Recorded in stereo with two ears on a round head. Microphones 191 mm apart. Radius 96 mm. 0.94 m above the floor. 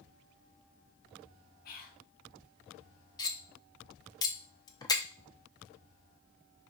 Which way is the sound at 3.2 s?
20° left (ahead or behind).